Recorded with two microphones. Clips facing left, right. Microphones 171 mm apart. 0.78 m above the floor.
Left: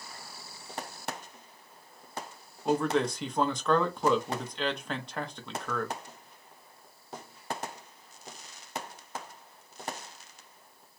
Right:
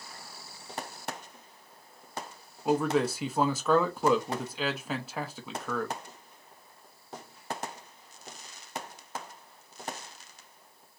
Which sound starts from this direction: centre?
A man speaking, at 2.6 s.